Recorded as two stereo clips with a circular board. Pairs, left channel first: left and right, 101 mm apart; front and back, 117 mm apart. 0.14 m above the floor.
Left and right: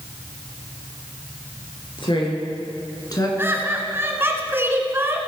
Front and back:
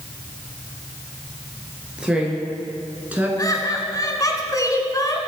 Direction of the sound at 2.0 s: 100° left.